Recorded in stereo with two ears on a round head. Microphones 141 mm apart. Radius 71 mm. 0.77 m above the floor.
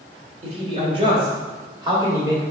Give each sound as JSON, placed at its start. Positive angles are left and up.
{"t": 0.4, "sound": "a man speaking", "side_deg": -45, "distance_m": 3.0}